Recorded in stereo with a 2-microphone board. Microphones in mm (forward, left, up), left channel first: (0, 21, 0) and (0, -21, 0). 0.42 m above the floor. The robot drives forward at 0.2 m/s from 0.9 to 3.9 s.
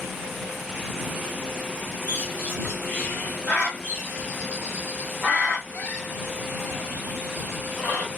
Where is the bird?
60° left (ahead or behind), 1.7 m; by 8.1 s 55° left (ahead or behind), 1.8 m.